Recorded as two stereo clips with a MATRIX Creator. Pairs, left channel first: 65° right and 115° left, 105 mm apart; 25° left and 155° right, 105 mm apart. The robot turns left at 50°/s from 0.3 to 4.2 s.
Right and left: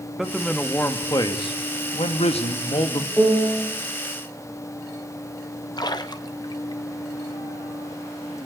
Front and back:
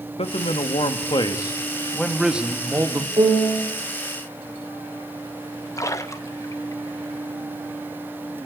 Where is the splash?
30° right, 1.2 m.